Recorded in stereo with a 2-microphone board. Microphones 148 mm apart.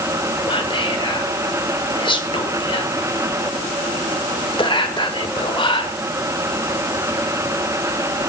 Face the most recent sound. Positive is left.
turn(degrees=35)  # may be behind; listen again after turning